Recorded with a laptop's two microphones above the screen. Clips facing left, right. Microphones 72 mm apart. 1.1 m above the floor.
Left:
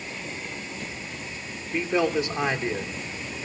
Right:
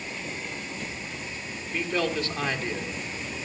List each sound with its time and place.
1.7 s a man speaking: 20° left (ahead or behind), 3 m